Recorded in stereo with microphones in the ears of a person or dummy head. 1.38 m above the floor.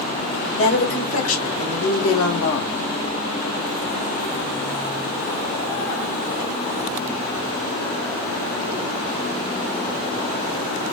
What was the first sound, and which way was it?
A woman speaking, 85° left.